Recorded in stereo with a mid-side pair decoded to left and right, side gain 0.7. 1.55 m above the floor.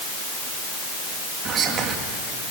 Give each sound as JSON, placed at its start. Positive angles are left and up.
{"t": 1.4, "sound": "whispering", "azimuth_deg": -40, "distance_m": 2.5}